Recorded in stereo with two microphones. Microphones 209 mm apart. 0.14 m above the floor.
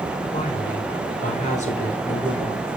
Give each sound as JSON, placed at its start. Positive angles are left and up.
{"t": 0.3, "sound": "a woman speaking", "side_deg": 35, "distance_m": 1.9}